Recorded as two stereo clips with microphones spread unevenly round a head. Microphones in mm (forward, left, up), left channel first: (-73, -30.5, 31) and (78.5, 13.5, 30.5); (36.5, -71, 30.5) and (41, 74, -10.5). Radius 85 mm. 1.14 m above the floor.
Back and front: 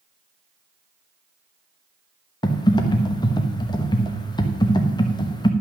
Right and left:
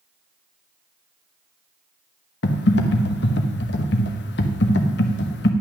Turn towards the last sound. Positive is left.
turn(degrees=-100)